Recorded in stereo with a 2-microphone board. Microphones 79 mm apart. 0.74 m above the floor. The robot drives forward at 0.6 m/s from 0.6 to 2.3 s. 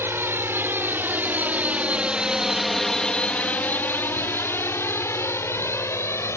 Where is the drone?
30° right (ahead or behind); by 6.4 s 35° left (ahead or behind).